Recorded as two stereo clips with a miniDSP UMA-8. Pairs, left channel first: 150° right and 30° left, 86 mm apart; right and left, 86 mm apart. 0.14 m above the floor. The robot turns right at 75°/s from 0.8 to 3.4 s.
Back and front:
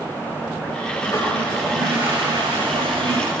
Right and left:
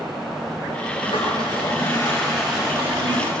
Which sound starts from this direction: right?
A toilet flushing, at 1.0 s.